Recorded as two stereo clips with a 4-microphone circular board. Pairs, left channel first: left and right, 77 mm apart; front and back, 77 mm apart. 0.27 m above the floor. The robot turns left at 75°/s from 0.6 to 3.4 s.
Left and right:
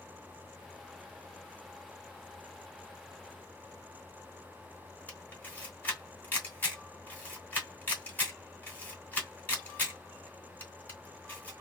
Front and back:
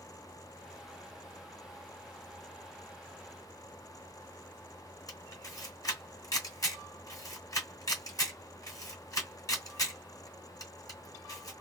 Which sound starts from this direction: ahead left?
A camera shutter, at 5.1 s.